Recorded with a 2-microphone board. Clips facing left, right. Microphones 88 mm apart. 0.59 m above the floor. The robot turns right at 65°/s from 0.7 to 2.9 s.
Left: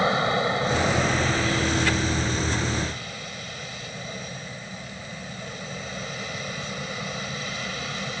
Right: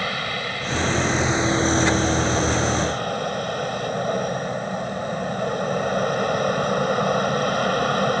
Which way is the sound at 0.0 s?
155° left.